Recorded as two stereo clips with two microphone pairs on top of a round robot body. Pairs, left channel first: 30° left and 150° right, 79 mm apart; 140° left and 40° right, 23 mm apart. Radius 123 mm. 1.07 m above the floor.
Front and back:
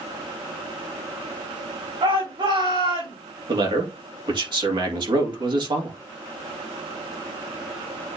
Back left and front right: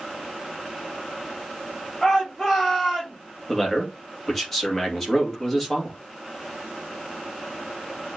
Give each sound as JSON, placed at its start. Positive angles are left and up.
{"t": 2.0, "sound": "a shout", "azimuth_deg": -135, "distance_m": 4.5}
{"t": 3.5, "sound": "a man speaking", "azimuth_deg": -140, "distance_m": 2.5}